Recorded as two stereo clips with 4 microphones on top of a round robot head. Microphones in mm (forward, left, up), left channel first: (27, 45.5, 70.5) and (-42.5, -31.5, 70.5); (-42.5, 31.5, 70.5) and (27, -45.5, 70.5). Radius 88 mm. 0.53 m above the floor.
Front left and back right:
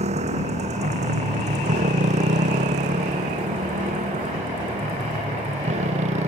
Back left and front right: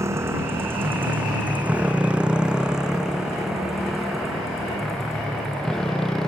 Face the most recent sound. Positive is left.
turn(degrees=-140)